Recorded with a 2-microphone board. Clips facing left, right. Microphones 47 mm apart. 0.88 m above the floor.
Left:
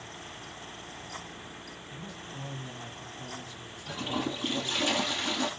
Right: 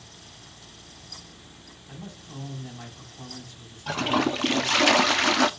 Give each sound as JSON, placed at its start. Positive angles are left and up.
{"t": 1.9, "sound": "a man speaking", "side_deg": -40, "distance_m": 5.5}
{"t": 3.9, "sound": "a toilet flushing", "side_deg": -75, "distance_m": 0.6}